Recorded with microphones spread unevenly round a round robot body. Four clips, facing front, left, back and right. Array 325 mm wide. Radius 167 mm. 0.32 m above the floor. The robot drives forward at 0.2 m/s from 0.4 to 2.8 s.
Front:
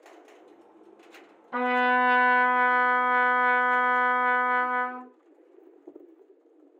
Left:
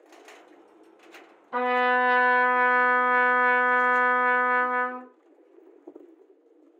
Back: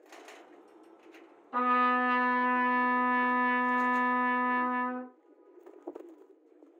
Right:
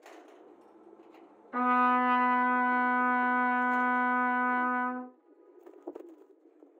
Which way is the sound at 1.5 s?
35° left.